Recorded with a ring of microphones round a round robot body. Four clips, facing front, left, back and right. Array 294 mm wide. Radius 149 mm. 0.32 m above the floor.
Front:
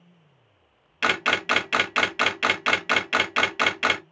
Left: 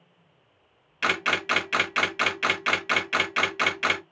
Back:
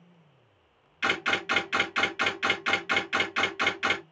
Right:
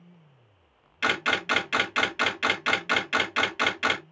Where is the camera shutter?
5° right, 1.4 m.